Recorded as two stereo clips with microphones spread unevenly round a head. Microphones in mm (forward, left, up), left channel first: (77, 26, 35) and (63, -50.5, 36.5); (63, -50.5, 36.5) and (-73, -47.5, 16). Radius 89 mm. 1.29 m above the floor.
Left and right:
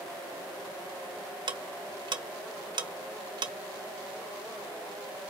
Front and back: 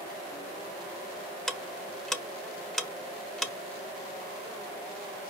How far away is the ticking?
About 1.2 m.